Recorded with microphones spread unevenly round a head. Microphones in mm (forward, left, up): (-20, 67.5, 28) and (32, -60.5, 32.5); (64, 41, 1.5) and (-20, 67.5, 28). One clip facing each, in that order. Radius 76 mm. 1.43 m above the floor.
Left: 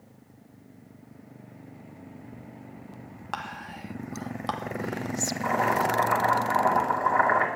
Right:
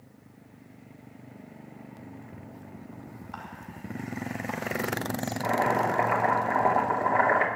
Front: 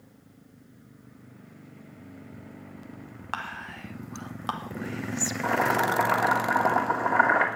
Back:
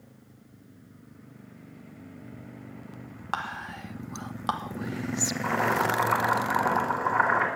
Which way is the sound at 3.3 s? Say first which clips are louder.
Left 10 dB, back 2 dB; 100° left.